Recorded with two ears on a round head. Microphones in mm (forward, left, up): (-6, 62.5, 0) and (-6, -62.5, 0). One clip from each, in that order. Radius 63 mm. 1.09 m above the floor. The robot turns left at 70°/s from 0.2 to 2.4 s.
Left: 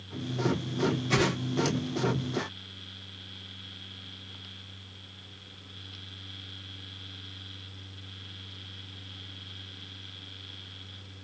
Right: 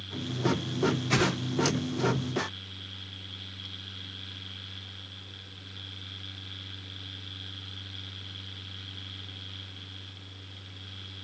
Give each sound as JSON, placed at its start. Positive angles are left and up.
{"t": 1.1, "sound": "a whoosh", "side_deg": -10, "distance_m": 0.7}